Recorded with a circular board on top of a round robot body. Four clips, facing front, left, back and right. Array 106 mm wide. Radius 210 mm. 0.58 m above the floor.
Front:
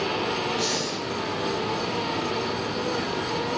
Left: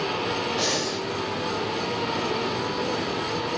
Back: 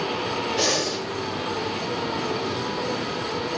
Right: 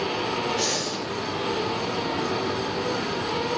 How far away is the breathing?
About 3.5 m.